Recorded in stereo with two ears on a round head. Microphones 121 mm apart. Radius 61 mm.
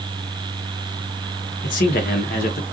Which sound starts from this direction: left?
A man speaking, at 1.6 s.